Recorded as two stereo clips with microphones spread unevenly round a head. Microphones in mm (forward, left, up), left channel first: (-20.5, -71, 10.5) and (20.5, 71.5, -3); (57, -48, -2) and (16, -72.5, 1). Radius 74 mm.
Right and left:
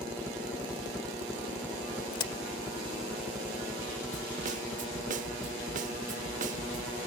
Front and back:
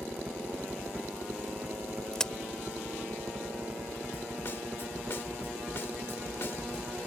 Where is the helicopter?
170° left.